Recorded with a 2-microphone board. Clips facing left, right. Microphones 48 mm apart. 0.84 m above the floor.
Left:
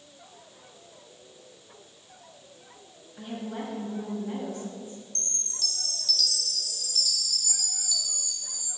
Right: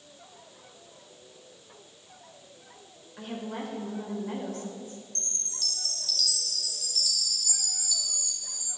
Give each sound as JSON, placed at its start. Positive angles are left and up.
{"t": 3.2, "sound": "a woman speaking", "side_deg": -55, "distance_m": 3.5}
{"t": 5.2, "sound": "a chime", "side_deg": 0, "distance_m": 2.0}